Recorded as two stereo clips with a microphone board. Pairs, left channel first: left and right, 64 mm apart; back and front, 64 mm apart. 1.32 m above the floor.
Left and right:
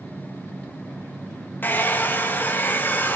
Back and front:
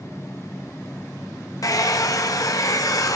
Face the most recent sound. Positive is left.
turn(degrees=150)